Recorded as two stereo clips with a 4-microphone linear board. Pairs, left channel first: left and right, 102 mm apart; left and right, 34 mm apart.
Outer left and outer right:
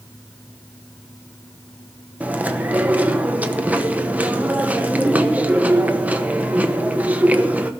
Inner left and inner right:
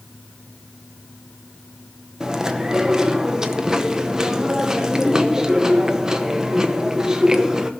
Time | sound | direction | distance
2.2 | chewing | 15° right (ahead or behind) | 0.9 m